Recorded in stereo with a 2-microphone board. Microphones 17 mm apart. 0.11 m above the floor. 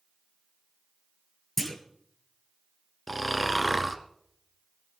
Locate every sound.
1.6 s a clunk: 15° left (ahead or behind), 1.5 m
3.1 s snoring: 5° left (ahead or behind), 1.2 m